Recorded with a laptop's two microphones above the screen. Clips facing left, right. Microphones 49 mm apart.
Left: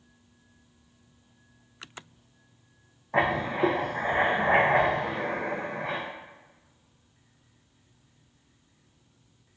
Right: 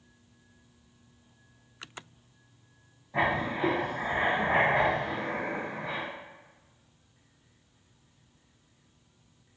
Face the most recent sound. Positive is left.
turn(degrees=60)  # may be behind; listen again after turning